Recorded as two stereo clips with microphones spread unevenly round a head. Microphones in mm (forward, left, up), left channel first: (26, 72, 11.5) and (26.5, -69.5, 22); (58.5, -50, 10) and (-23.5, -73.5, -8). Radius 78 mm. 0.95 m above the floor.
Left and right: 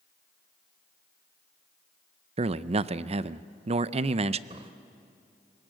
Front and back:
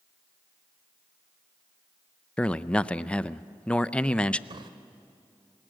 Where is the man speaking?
70° right, 0.5 m.